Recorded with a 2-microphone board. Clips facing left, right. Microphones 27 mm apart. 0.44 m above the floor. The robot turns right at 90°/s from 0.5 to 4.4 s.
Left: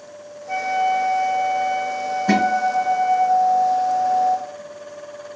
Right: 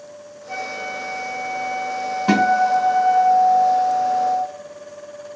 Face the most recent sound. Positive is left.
turn(degrees=55)